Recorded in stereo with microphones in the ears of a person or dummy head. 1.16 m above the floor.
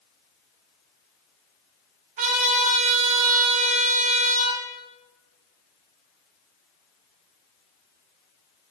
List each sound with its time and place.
2.2 s a trumpet: 45° right (ahead or behind), 2.5 m